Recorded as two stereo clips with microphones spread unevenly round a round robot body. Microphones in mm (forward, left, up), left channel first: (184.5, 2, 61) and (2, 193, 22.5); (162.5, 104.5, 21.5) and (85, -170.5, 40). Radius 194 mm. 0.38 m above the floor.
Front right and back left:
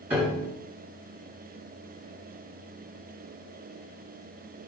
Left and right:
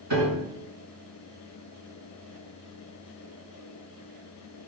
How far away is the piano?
About 5 m.